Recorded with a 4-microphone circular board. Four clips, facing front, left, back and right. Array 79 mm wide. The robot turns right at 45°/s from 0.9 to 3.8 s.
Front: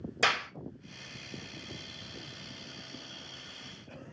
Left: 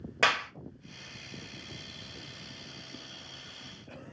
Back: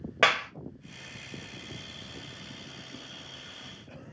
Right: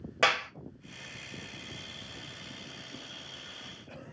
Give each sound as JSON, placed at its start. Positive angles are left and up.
{"t": 0.2, "sound": "a clap", "azimuth_deg": 180, "distance_m": 1.5}